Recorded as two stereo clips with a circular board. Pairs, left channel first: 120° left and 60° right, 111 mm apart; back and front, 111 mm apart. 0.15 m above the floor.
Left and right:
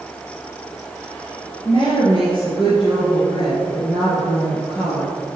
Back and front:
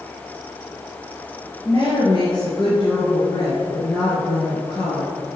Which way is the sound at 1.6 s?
140° left.